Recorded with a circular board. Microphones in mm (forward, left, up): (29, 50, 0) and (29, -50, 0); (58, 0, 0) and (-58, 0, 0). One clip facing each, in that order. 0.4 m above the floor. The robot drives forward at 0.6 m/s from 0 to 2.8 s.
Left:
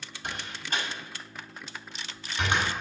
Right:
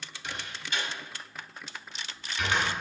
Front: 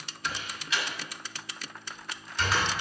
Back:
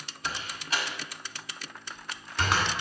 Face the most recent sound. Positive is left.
turn(degrees=155)